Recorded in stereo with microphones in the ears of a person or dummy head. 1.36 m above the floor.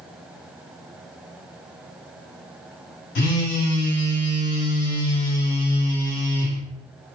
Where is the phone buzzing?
60° left (ahead or behind), 1.6 m.